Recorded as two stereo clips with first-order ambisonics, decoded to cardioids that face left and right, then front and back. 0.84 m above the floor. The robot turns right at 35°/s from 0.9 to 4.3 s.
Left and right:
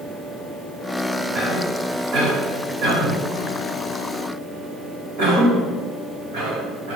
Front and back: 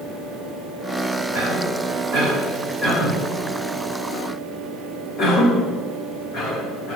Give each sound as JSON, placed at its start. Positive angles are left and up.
{"t": 1.3, "sound": "a cough", "azimuth_deg": -160, "distance_m": 3.5}